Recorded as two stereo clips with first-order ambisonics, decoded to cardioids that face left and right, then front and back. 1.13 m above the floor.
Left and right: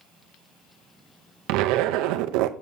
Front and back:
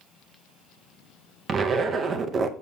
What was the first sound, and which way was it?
A zipper, 115° right.